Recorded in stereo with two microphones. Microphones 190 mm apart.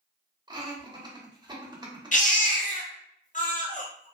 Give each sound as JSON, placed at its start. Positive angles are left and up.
{"t": 0.5, "sound": "laughter", "side_deg": -20, "distance_m": 0.9}
{"t": 2.1, "sound": "a baby crying", "side_deg": 45, "distance_m": 0.6}